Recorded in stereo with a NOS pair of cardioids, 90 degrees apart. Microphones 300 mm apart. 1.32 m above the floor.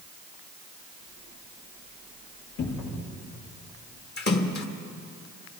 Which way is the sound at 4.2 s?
35° left.